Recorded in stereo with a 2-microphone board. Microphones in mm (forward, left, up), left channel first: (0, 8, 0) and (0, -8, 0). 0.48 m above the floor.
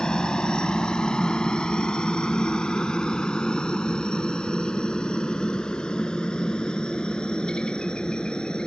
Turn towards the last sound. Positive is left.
turn(degrees=80)